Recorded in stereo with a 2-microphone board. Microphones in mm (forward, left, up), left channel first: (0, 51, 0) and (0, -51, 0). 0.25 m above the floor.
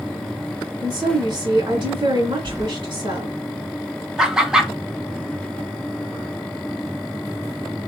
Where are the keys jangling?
35° right (ahead or behind), 0.8 m.